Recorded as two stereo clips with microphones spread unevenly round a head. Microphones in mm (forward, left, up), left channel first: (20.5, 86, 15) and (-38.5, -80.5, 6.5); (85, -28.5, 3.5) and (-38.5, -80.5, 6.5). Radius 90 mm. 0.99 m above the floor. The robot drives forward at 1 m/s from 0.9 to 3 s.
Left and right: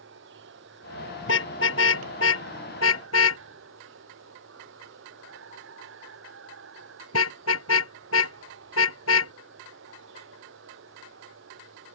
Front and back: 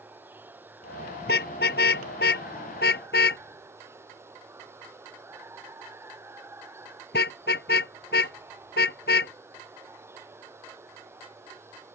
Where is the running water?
80° right; by 12.0 s 85° right.